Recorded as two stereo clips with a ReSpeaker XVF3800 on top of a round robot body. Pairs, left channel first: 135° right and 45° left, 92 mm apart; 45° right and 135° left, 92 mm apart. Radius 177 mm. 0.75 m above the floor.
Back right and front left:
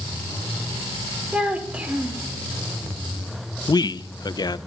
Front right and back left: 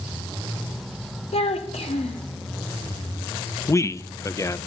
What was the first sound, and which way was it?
A child speaking, 30° right.